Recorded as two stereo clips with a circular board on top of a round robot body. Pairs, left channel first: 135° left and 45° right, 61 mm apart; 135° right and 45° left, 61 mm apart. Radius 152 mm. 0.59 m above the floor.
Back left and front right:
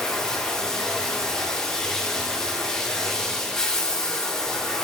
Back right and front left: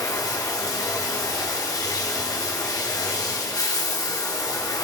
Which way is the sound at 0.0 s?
145° right.